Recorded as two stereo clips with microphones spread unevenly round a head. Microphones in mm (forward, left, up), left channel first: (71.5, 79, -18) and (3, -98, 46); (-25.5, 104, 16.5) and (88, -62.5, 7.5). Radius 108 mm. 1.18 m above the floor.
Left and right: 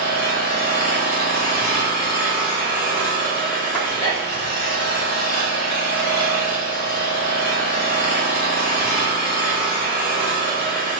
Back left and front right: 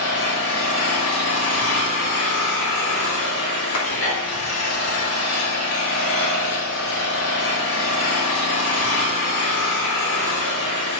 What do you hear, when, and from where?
0.0 s an engine running: 120° left, 5 m
3.7 s a clap: 145° left, 3 m